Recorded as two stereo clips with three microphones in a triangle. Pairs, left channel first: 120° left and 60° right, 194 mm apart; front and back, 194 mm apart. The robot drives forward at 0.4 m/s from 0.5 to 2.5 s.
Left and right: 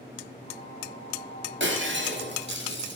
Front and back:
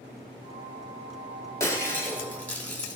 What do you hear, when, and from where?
1.6 s breaking glass: 75° right, 3.5 m; by 3.0 s 80° right, 3.5 m